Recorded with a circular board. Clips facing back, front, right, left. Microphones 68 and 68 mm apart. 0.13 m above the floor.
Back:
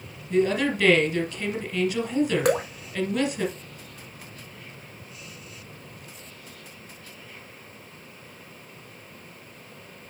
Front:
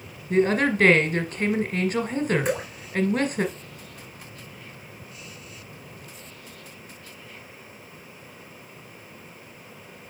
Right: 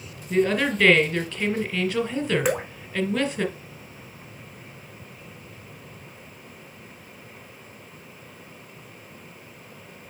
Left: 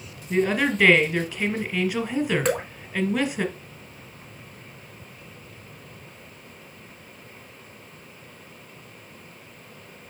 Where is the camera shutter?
No camera shutter in this recording.